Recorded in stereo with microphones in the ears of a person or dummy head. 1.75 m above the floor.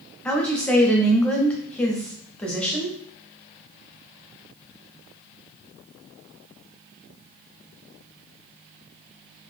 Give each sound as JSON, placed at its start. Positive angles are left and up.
{"t": 0.2, "sound": "a woman speaking", "side_deg": 10, "distance_m": 0.5}